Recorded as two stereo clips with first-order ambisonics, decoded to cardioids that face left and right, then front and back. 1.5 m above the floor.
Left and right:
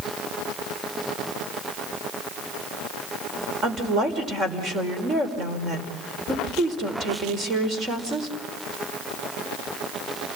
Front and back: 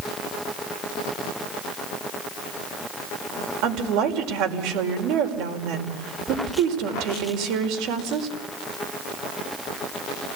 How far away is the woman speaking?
About 5 m.